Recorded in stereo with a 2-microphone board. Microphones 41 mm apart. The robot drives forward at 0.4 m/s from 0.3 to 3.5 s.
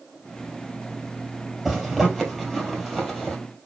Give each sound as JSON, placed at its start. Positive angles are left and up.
{"t": 1.6, "sound": "a zipper", "side_deg": -5, "distance_m": 2.5}